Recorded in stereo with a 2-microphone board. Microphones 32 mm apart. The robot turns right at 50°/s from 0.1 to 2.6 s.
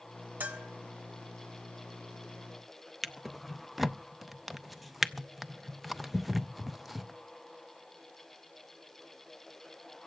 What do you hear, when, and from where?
0.4 s a bell: 75° right (ahead or behind), 1.4 m; by 0.7 s 65° right (ahead or behind), 1.4 m
3.0 s a drawer: 5° left (ahead or behind), 0.5 m